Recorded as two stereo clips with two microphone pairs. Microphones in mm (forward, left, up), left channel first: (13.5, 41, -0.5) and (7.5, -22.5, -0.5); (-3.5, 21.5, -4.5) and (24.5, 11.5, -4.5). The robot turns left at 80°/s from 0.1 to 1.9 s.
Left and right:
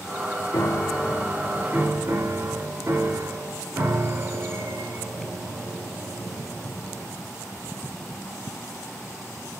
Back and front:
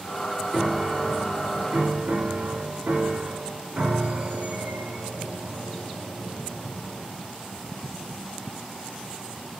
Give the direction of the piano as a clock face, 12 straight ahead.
10 o'clock.